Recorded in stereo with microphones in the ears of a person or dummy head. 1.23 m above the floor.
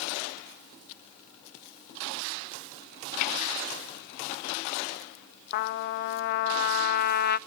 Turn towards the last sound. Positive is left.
turn(degrees=55)  # may be behind; listen again after turning